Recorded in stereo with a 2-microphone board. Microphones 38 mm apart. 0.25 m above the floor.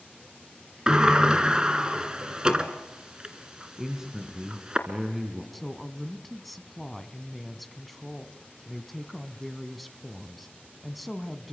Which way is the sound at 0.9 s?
20° right (ahead or behind).